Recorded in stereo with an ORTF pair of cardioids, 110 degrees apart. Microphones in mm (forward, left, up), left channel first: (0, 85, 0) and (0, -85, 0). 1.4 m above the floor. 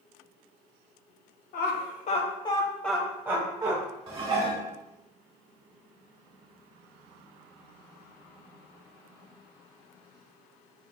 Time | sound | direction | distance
1.5 | laughter | 70° left | 1.2 m
4.1 | dishes clattering | 35° right | 2.0 m